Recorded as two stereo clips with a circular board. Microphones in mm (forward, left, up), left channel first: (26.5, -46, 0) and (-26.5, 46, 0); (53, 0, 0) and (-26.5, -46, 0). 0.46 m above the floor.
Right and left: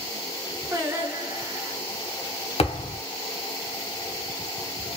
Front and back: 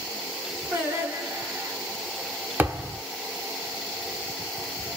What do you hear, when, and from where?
0.7 s singing: 165° left, 1.1 m
2.6 s a thud: 80° right, 0.6 m